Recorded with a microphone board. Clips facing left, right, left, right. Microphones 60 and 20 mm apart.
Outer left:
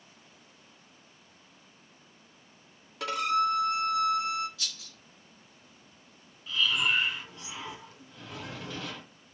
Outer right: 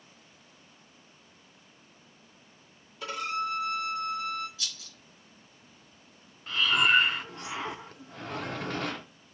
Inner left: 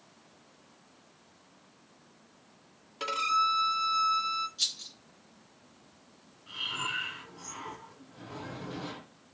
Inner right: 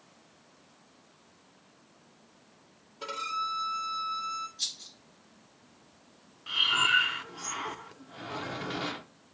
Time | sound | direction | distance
3.0 | a violin | 70° left (ahead or behind) | 0.8 m
4.6 | a rattle | 70° left (ahead or behind) | 3 m
6.5 | breathing | 50° right (ahead or behind) | 0.5 m